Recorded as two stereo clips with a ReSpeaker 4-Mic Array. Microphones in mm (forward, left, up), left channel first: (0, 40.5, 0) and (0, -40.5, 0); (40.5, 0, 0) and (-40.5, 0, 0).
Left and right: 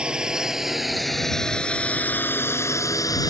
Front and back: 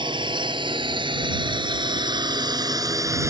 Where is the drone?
170° right; by 3.3 s 130° left.